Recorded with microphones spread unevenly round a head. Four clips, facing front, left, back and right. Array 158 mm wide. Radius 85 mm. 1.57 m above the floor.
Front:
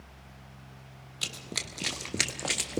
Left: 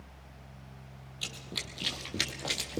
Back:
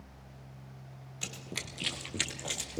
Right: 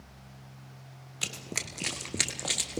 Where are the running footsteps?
80° right, 1.8 m; by 2.8 s 5° right, 2 m.